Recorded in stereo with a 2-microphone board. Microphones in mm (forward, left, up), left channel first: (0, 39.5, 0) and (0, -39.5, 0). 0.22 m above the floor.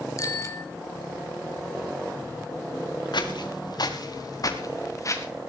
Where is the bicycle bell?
45° left (ahead or behind), 2 m.